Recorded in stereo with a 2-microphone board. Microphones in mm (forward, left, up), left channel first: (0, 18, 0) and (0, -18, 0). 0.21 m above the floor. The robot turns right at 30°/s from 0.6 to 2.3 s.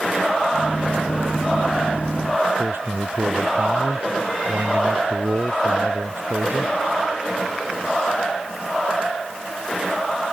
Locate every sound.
2.6 s a man speaking: 85° right